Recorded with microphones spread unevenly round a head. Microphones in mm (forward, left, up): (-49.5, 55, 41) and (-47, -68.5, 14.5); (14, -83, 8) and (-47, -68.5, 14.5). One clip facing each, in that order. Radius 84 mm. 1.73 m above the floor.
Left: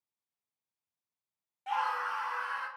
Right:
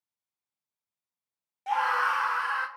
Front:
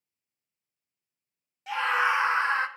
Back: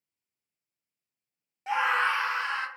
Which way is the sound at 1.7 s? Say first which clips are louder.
Right 6 dB, even; 145° right.